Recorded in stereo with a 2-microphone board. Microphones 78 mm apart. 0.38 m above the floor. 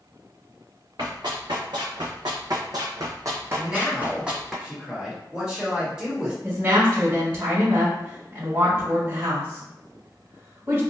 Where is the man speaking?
10° right (ahead or behind), 1.3 m.